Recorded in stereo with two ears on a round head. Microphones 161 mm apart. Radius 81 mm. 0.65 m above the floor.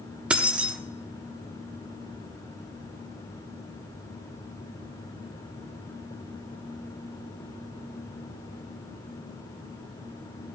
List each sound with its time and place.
0.3 s keys jangling: 5° right (ahead or behind), 0.6 m